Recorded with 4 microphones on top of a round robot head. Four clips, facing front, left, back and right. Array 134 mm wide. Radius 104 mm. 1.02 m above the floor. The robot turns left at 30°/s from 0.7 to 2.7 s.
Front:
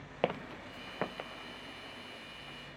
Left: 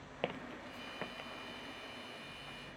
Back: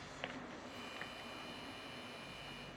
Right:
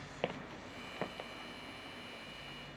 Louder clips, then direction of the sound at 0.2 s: Even, front 14 dB; 5° right.